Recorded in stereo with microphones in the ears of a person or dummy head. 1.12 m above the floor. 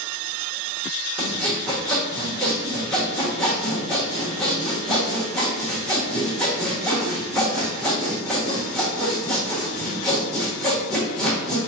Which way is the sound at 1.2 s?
Centre (ahead or behind).